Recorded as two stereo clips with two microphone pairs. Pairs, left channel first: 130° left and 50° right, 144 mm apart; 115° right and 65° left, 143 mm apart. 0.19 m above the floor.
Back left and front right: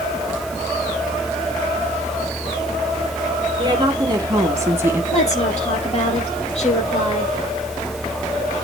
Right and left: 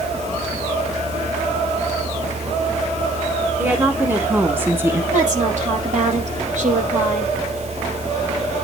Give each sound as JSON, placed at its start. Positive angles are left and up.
{"t": 3.6, "sound": "a woman speaking", "azimuth_deg": -5, "distance_m": 2.0}
{"t": 5.1, "sound": "a woman speaking", "azimuth_deg": 95, "distance_m": 4.5}